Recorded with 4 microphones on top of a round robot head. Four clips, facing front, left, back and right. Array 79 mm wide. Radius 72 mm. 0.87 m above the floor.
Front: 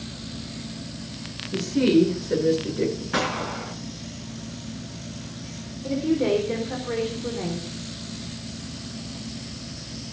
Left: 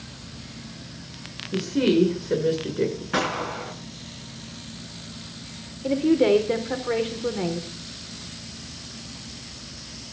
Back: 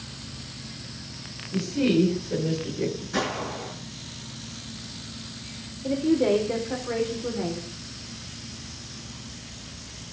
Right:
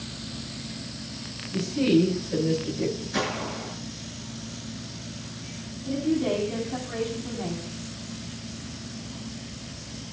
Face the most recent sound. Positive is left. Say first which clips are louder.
# left 6 dB, back 1 dB
turn(degrees=95)